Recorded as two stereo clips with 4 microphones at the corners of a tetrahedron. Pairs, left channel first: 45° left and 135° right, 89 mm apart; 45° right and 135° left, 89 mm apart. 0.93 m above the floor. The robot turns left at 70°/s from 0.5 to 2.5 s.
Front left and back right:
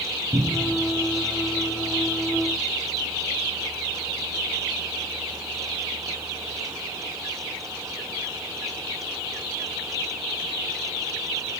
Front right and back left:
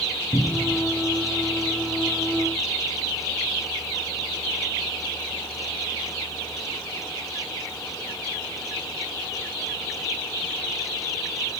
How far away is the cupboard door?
About 5.5 m.